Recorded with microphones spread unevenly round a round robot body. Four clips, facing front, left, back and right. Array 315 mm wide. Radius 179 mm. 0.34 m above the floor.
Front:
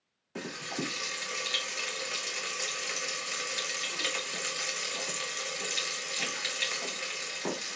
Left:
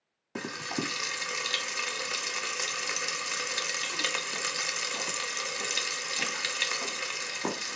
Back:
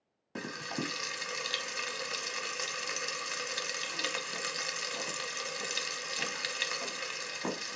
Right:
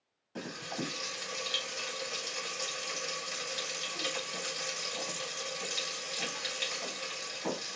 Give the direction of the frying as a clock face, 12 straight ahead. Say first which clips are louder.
Left 4 dB, front 1 dB; 9 o'clock.